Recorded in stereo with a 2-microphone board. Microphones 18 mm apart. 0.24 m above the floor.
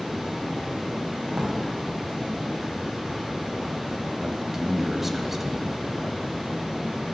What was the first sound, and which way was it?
Running water, 55° right (ahead or behind).